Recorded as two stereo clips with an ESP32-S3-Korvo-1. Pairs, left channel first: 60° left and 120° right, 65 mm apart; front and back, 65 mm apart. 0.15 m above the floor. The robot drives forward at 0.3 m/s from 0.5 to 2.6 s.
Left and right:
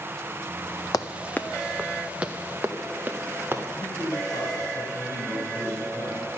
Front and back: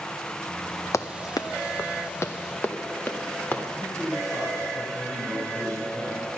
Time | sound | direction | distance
0.9 | running footsteps | 35° left | 0.5 m
3.8 | a man speaking | 75° left | 3.5 m